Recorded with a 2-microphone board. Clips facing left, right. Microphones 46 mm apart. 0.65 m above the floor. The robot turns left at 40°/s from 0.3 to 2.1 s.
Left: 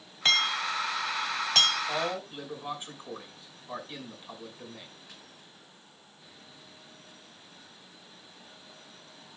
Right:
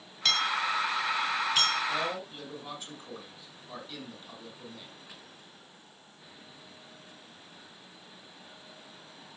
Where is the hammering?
25° left (ahead or behind), 3 m; by 1.8 s 80° left, 3 m.